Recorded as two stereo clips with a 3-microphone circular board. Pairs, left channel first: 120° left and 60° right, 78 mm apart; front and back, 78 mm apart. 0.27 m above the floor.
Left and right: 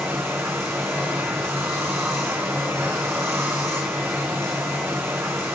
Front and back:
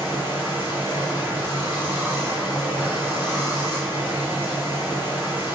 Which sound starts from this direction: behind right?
Running water, at 0.0 s.